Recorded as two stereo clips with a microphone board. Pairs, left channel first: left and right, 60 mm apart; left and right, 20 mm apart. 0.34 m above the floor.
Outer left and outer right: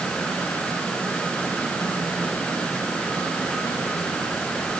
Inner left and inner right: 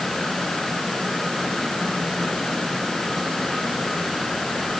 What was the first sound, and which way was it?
Only background noise.